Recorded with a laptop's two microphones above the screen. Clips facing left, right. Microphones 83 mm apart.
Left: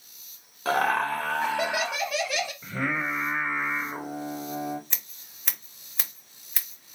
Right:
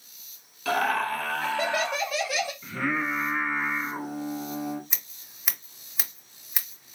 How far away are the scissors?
About 1.7 m.